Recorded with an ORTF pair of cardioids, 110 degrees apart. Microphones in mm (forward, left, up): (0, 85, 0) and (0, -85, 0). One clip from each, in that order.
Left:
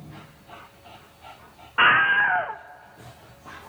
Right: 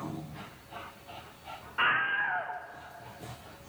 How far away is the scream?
About 0.6 m.